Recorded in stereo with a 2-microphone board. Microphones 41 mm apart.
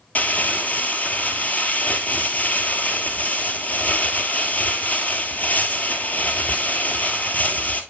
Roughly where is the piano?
No piano in this recording.